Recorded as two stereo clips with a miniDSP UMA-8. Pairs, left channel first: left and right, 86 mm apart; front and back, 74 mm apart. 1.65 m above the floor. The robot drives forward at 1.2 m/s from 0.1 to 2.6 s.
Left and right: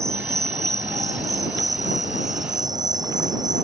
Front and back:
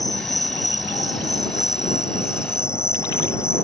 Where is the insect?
35° right; by 3.6 s 50° right.